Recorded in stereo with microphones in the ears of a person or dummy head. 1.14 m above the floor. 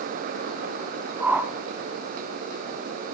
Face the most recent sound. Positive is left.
turn(degrees=-5)  # may be behind; listen again after turning